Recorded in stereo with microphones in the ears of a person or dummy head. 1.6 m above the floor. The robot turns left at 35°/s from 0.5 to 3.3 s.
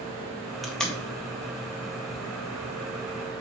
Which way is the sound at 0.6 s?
Centre (ahead or behind).